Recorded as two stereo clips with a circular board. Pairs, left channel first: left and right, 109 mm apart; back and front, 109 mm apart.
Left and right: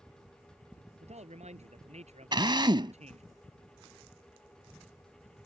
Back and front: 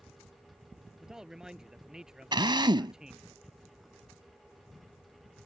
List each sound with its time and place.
1.0 s a man speaking: 85° right
2.3 s a drill: 45° right